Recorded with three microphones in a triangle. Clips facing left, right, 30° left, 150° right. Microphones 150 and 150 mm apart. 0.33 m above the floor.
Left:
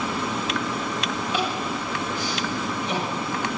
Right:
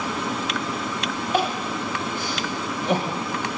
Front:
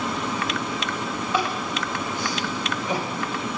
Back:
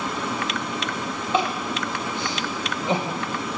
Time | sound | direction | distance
1.3 | crying | 90° right | 1.1 m